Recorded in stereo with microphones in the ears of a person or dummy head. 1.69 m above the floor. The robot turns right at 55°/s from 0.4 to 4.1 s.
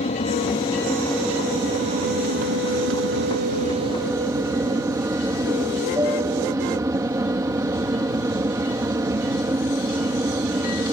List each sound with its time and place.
0.0 s an aircraft: 140° left; by 10.9 s 20° right